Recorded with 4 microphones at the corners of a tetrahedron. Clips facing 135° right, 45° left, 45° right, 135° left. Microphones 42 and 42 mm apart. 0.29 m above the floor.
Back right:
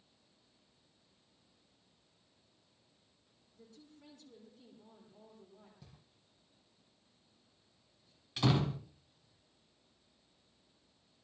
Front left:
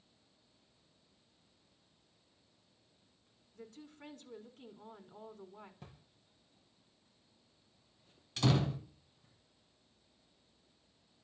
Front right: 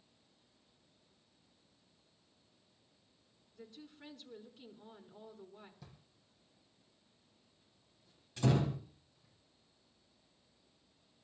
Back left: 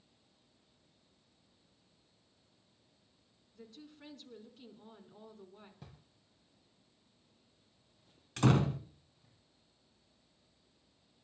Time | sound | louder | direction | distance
3.5 | a woman speaking | front left 7 dB, even | 45° left | 3 m
5.8 | a drawer | front left 5 dB, back left 2 dB | 85° left | 5.5 m
8.4 | a door slam | even, back left 3 dB | 145° left | 2.5 m